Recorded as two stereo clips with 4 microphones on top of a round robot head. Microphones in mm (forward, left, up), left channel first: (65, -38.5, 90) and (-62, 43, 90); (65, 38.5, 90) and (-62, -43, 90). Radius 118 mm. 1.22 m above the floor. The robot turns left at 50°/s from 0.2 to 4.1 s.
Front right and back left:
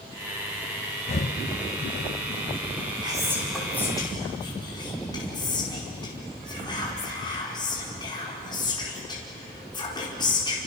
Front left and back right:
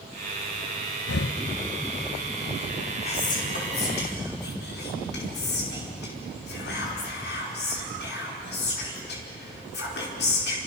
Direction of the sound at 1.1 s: 20° left.